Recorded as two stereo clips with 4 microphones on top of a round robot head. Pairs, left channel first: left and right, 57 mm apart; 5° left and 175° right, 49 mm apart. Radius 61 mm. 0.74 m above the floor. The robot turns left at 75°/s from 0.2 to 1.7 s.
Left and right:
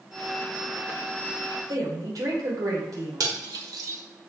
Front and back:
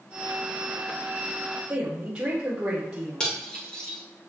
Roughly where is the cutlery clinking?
Right.